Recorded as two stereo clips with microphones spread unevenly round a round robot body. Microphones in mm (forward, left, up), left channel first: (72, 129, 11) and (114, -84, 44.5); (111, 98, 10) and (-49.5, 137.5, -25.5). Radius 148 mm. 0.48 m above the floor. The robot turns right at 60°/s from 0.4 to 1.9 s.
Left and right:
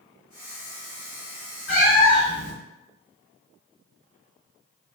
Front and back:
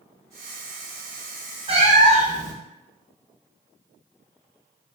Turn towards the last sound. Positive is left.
turn(degrees=130)